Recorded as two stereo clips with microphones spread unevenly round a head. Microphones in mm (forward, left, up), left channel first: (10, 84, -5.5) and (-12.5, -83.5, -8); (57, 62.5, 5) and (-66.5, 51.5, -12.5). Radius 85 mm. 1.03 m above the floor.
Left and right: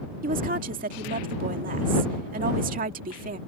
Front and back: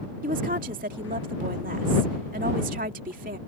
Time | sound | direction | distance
0.2 | a woman speaking | 140° right | ?